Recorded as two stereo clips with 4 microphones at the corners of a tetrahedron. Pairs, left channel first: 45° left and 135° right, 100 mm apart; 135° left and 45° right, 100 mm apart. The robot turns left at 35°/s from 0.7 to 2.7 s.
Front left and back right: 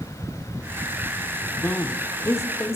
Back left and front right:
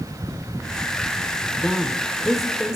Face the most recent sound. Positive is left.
turn(degrees=30)